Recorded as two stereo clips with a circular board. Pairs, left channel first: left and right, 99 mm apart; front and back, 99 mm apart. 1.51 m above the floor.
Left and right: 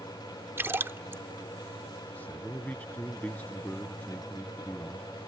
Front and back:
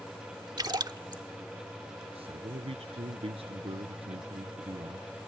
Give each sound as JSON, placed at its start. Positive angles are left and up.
{"t": 0.6, "sound": "a splash", "azimuth_deg": -150}
{"t": 2.1, "sound": "a man speaking", "azimuth_deg": 165}